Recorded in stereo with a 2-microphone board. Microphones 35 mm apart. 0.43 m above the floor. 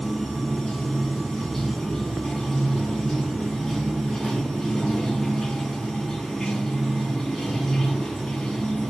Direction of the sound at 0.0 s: 10° left (ahead or behind).